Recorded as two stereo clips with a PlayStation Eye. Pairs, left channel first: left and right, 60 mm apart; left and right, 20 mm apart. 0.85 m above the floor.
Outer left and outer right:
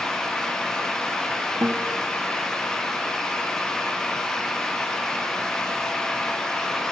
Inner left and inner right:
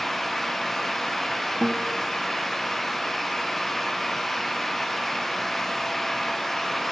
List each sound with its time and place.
1.6 s a guitar: 60° right (ahead or behind), 1.3 m